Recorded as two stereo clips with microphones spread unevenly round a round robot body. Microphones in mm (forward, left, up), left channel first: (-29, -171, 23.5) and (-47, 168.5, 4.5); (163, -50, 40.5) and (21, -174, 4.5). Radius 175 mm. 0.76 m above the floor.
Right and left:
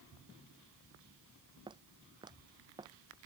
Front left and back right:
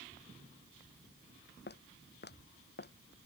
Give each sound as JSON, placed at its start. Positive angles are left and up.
{"t": 1.7, "sound": "footsteps", "azimuth_deg": 15}